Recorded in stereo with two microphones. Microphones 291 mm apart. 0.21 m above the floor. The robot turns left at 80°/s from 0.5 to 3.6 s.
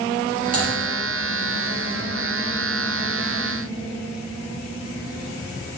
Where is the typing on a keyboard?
30° right (ahead or behind), 2.5 m; by 0.7 s 20° right (ahead or behind), 2.5 m.